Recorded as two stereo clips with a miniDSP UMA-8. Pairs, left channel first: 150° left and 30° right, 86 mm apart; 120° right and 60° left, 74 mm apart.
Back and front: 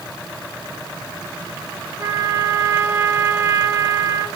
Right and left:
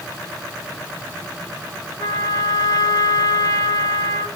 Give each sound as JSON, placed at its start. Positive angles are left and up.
{"t": 2.0, "sound": "a trumpet", "azimuth_deg": -85, "distance_m": 1.5}